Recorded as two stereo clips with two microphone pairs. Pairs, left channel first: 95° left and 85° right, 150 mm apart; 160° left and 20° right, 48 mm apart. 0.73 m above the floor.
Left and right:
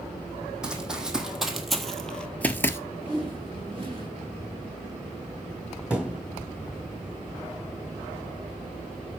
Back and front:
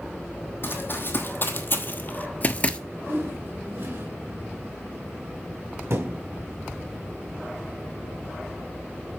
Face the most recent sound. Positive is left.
turn(degrees=0)